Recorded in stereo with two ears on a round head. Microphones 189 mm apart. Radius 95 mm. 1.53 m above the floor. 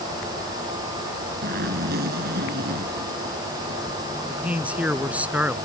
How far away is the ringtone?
No ringtone in this recording.